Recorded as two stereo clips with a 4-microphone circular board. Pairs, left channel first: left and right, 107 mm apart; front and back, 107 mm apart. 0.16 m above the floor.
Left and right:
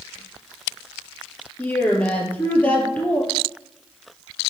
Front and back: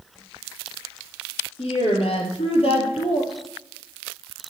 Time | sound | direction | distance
1.6 | a woman speaking | 15° left | 3.5 m